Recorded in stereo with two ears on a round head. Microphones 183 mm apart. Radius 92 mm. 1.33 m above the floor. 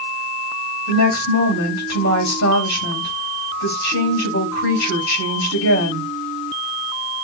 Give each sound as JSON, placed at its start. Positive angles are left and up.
{"t": 0.9, "sound": "a woman speaking", "side_deg": 90, "distance_m": 6.5}